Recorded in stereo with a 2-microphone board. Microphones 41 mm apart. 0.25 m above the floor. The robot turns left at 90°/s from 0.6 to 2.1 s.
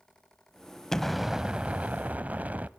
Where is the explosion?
20° left, 0.7 m; by 2.7 s 85° right, 0.7 m.